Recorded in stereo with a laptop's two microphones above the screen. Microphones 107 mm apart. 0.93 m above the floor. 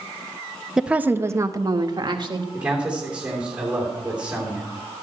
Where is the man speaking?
10° right (ahead or behind), 3 m.